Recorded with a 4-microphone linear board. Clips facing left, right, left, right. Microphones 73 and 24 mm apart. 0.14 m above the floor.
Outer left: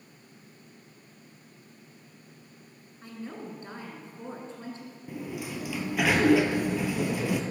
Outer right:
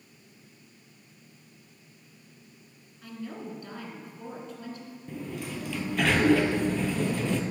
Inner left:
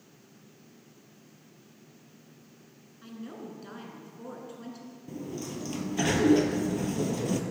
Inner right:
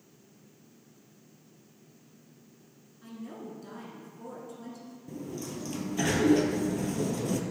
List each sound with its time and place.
3.0 s a woman speaking: 30° left (ahead or behind), 1.2 m
5.1 s a sliding door: 10° left (ahead or behind), 0.6 m